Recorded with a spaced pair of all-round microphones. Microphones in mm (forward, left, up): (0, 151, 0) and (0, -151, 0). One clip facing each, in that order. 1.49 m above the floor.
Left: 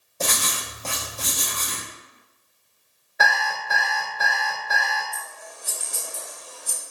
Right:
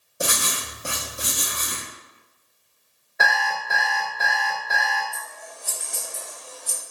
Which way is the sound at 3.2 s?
Centre (ahead or behind).